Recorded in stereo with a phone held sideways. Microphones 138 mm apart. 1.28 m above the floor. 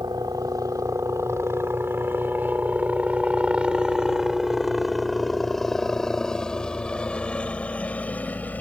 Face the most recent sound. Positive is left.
turn(degrees=10)  # may be behind; listen again after turning